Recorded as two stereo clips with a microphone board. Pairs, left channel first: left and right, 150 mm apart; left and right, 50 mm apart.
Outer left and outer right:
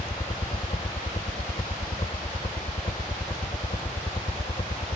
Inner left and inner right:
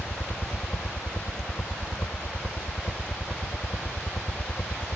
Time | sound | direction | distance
0.0 | a helicopter | 45° left (ahead or behind) | ?